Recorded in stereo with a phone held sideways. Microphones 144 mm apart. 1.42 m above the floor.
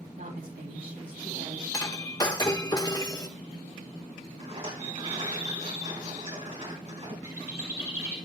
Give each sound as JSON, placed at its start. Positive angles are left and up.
{"t": 0.2, "sound": "a woman speaking", "side_deg": -80, "distance_m": 3.5}
{"t": 1.7, "sound": "breaking glass", "side_deg": 25, "distance_m": 1.1}
{"t": 4.4, "sound": "a rattle", "side_deg": -45, "distance_m": 5.0}
{"t": 7.2, "sound": "a bird", "side_deg": -20, "distance_m": 3.0}